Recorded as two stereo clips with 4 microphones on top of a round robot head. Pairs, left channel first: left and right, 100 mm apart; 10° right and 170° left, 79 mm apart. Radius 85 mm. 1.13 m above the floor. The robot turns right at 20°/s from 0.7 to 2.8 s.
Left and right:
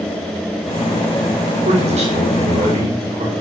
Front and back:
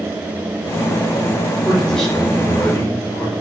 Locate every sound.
1.6 s a man speaking: 100° right, 5 m; by 3.3 s 75° right, 5 m